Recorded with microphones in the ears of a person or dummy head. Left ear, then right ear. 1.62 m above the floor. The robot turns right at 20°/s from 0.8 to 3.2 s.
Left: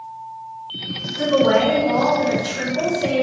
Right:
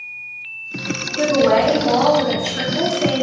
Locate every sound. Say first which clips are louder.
1.2 s a woman speaking: right 1 dB; 170° right, 1.4 m; by 3.2 s 130° right, 1.4 m